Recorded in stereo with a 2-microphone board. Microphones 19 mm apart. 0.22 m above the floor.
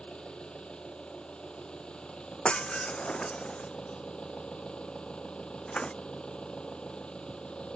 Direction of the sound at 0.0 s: 70° left (ahead or behind).